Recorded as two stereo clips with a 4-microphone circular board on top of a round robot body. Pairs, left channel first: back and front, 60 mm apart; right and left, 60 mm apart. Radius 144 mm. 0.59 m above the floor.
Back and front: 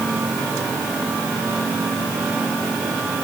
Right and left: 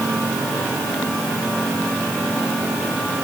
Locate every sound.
Only background noise.